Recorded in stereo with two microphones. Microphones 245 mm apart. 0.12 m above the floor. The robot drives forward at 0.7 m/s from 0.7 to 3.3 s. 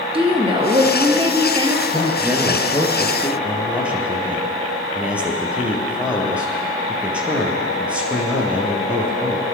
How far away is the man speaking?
About 2.5 m.